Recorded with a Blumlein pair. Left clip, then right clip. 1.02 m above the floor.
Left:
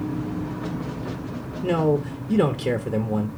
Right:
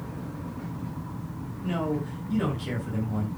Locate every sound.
1.6 s a man speaking: 50° left, 1.4 m